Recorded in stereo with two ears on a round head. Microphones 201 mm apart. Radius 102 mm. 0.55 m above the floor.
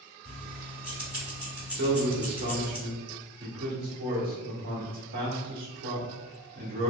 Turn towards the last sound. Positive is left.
turn(degrees=-40)  # may be behind; listen again after turning